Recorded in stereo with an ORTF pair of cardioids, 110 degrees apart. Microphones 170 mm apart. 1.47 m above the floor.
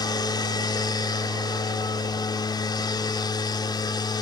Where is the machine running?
25° left.